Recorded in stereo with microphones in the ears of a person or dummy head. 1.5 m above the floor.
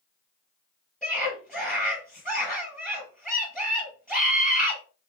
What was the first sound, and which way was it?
A scream, centre (ahead or behind).